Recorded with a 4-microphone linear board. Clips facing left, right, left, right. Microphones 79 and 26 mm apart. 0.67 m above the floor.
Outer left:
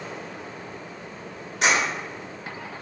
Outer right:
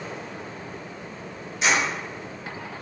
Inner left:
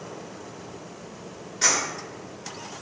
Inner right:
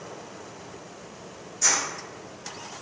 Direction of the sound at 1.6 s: 60° left (ahead or behind).